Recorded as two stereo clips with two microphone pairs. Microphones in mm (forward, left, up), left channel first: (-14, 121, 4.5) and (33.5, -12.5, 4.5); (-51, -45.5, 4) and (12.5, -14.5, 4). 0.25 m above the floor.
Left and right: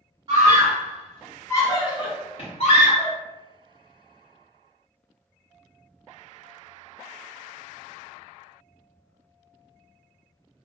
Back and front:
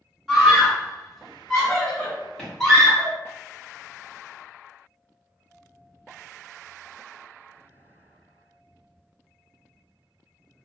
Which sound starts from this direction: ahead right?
A scream, at 0.3 s.